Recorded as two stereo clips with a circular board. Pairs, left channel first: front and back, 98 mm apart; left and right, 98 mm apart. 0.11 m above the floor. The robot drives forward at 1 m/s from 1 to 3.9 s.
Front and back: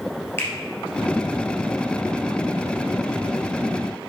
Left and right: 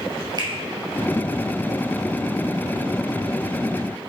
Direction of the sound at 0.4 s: 60° right.